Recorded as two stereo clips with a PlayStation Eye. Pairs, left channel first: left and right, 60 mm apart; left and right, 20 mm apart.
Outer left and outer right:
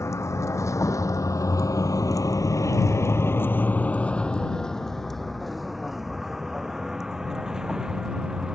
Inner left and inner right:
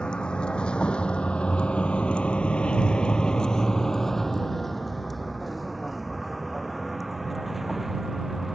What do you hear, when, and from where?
0.0 s a vehicle: 55° left (ahead or behind); by 8.6 s 15° right (ahead or behind)